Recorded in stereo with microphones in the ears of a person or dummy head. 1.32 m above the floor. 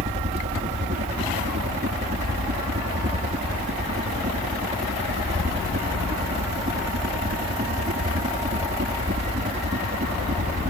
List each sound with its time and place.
0.0 s a helicopter: 35° right (ahead or behind)